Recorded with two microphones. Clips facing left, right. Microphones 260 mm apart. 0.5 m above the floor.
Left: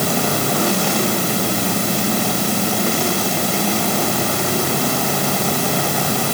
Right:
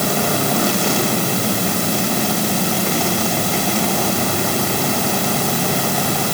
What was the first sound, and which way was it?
Only background noise.